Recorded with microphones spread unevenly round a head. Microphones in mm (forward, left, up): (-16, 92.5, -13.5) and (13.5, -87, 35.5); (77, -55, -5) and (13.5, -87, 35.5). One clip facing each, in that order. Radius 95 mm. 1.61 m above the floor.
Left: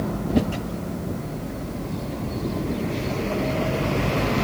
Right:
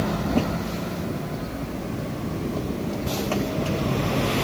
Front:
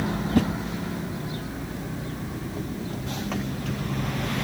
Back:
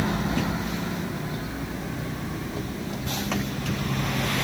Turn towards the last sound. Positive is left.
turn(degrees=5)